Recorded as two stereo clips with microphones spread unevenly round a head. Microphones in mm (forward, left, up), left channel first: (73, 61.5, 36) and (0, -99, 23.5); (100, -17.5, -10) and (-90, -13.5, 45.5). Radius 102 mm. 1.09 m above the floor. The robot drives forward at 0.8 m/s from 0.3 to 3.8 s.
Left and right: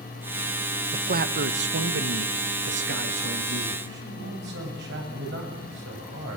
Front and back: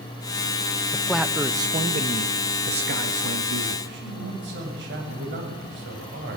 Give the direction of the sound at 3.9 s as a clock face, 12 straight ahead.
5 o'clock.